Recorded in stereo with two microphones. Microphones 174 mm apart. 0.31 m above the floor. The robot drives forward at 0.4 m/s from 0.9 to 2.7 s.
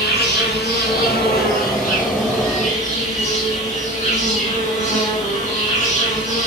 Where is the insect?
70° left (ahead or behind), 0.9 m; by 6.5 s 40° left (ahead or behind), 1.2 m.